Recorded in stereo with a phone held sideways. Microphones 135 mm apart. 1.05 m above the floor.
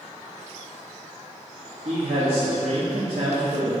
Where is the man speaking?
75° right (ahead or behind), 2.5 m.